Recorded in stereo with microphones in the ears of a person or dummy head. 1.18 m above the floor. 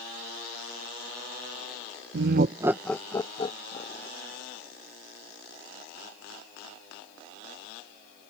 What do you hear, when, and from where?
2.1 s laughter: 70° right (ahead or behind); by 4.1 s 35° left (ahead or behind)